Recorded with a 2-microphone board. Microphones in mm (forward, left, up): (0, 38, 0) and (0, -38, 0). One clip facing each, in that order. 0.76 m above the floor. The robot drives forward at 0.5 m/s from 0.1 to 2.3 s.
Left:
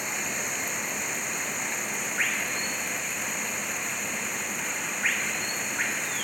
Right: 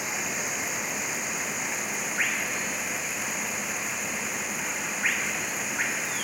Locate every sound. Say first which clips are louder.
0.0 s running water: right 1 dB; 5° right (ahead or behind)